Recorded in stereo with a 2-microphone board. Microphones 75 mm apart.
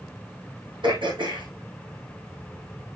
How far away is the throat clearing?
About 4.5 m.